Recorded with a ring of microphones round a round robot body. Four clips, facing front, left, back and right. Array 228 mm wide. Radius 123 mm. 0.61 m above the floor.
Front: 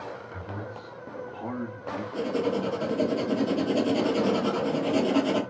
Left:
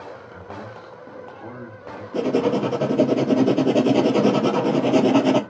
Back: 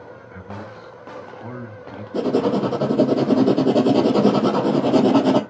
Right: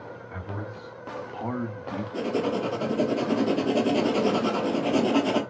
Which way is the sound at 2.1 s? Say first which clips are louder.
Left 7 dB, back 9 dB; 145° left.